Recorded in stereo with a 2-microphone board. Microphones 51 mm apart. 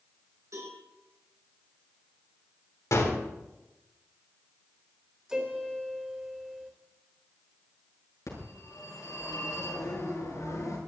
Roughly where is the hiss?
I don't hear a hiss.